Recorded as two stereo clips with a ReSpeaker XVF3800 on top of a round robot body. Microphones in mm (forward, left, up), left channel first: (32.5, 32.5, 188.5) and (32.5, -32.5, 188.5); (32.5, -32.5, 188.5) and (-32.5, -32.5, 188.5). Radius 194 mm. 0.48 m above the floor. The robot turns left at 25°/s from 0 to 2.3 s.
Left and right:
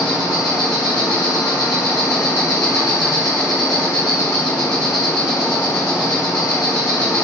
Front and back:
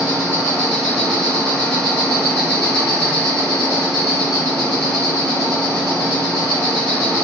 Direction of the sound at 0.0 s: 110° left.